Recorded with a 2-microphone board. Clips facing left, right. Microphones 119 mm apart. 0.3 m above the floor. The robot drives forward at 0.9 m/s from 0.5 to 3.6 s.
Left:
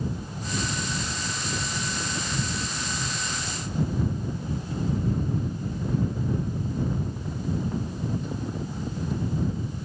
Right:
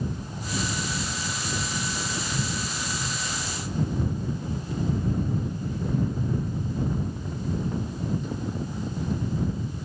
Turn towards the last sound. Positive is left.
No sound to turn to.